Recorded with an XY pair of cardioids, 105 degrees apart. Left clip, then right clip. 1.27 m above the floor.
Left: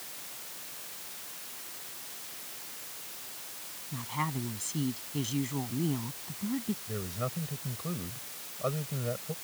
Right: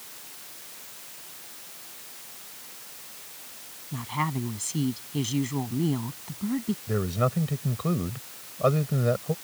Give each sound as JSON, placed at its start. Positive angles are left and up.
{"t": 3.9, "sound": "a woman speaking", "azimuth_deg": -35}
{"t": 6.9, "sound": "a man speaking", "azimuth_deg": -60}